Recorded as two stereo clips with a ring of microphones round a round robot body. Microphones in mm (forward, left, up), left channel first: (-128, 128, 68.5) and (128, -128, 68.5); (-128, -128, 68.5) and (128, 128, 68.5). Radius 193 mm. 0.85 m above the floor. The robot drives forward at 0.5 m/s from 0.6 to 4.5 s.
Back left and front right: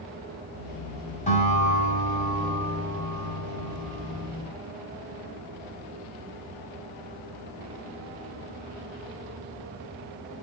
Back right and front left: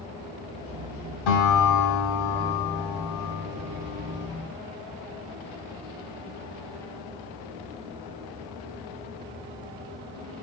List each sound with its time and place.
1.3 s a guitar: 155° right, 7 m; by 4.3 s 160° right, 8 m